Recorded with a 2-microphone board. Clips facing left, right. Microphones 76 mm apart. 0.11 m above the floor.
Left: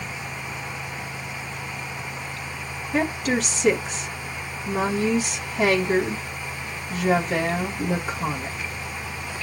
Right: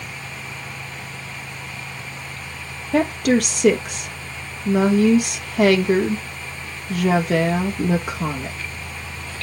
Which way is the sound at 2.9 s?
55° right (ahead or behind).